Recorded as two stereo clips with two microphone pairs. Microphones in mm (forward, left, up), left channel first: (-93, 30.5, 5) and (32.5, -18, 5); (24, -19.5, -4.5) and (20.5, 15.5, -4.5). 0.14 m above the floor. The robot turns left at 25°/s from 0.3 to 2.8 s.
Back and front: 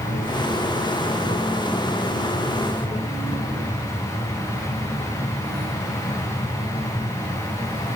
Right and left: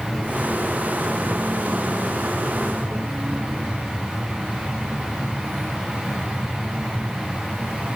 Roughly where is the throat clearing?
I don't hear throat clearing.